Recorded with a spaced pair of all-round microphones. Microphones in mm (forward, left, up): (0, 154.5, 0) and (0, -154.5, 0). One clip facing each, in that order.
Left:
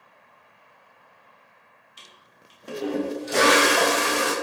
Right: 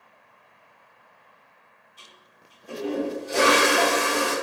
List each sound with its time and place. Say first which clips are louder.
2.0 s a toilet flushing: even; 80° left, 0.6 m